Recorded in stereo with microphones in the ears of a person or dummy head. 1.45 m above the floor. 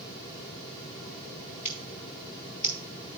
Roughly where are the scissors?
Left.